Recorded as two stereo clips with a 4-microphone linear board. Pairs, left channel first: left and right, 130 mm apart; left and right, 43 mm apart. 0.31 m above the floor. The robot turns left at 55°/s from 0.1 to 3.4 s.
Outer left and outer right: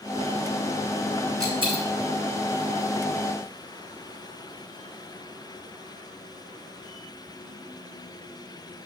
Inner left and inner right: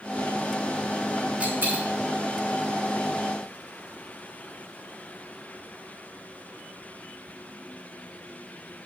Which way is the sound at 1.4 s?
25° right (ahead or behind).